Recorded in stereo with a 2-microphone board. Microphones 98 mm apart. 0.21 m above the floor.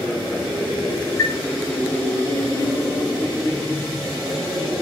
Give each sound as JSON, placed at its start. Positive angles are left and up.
{"t": 1.2, "sound": "a chime", "side_deg": 35, "distance_m": 3.0}